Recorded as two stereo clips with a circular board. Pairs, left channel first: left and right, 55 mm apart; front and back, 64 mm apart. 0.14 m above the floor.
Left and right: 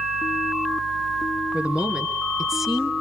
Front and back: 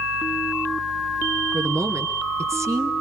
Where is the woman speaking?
150° right, 2 m; by 2.9 s 175° left, 1.9 m.